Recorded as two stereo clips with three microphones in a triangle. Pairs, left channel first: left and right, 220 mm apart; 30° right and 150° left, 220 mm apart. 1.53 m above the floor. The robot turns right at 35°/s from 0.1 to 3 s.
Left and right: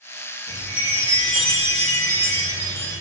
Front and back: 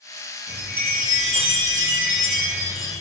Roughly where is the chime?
Behind.